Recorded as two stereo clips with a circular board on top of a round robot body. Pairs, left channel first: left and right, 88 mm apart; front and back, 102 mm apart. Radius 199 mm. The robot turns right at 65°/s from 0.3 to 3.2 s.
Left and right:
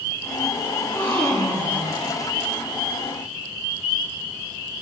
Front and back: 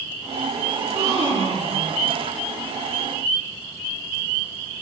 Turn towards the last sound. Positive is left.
turn(degrees=-65)